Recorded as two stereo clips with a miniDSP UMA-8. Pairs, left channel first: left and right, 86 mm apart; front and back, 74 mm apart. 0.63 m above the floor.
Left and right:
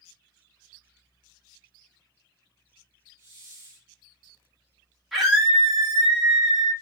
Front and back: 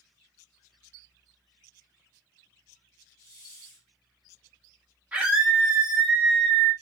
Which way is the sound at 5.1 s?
Straight behind.